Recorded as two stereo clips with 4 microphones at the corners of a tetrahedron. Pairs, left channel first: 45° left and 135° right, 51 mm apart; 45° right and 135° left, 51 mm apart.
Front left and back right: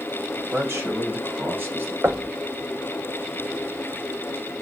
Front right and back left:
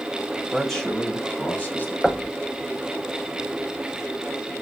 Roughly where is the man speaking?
Behind right.